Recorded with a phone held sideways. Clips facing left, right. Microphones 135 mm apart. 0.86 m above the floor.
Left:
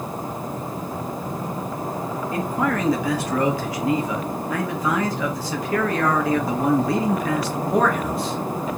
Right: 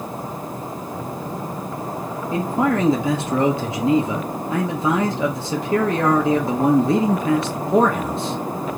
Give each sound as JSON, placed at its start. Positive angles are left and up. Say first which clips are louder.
{"t": 2.3, "sound": "a man speaking", "louder": "right 4 dB", "side_deg": -25, "distance_m": 0.7}